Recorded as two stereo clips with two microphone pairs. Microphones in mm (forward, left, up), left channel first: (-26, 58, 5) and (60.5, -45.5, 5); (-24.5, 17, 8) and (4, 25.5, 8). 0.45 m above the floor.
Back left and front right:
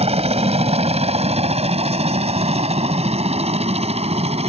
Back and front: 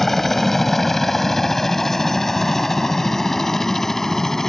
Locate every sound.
0.0 s a helicopter: 80° right; by 4.5 s 85° right